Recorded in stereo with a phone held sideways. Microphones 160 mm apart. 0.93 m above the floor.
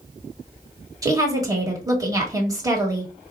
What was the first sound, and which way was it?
A woman speaking, 20° right (ahead or behind).